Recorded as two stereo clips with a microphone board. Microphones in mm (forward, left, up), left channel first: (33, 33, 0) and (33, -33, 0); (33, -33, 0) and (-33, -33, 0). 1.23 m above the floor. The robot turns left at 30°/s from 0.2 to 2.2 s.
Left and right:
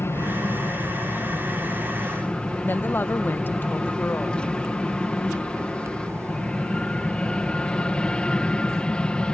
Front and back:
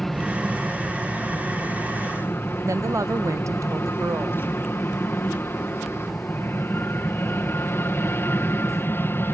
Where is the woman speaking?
145° left.